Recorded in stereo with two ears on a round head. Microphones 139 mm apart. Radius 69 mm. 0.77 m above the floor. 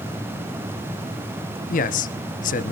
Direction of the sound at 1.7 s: 55° left (ahead or behind).